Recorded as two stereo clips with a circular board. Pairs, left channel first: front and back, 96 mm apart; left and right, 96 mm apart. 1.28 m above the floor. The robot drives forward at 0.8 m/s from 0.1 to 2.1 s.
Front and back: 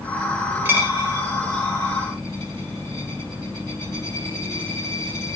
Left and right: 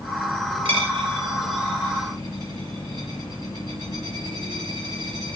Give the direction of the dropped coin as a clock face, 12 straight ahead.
4 o'clock.